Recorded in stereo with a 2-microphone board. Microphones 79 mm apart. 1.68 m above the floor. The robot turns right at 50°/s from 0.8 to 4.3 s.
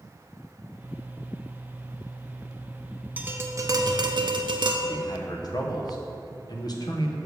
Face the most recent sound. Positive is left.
turn(degrees=55)  # may be behind; listen again after turning